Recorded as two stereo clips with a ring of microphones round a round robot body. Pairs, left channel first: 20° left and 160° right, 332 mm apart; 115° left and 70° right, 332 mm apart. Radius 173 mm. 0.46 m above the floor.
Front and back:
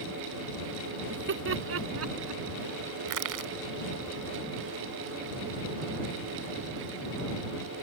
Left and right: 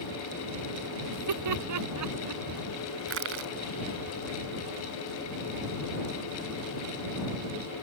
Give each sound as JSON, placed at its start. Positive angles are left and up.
{"t": 1.1, "sound": "laughter", "azimuth_deg": -100}
{"t": 3.1, "sound": "crushing", "azimuth_deg": -120}